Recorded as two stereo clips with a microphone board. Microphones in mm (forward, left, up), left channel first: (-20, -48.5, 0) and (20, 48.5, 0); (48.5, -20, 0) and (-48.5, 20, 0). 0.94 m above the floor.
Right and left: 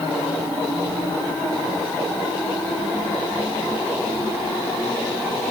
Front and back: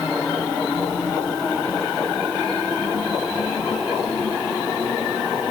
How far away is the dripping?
No dripping in this recording.